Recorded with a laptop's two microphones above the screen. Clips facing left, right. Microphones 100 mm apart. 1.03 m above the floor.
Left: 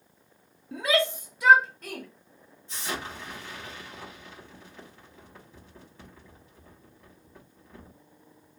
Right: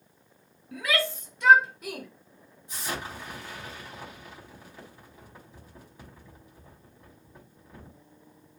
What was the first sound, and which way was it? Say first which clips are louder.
A shout: left 4 dB; 30° left (ahead or behind).